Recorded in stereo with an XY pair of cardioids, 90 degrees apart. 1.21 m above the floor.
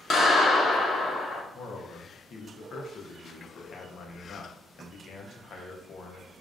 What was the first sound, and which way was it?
A clap, 65° left.